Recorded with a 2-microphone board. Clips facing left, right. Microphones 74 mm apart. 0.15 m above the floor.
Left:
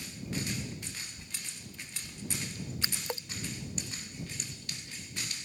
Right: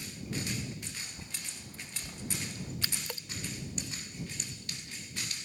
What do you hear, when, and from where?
1.0 s a bird: 35° right (ahead or behind)
2.8 s a splash: 25° left (ahead or behind)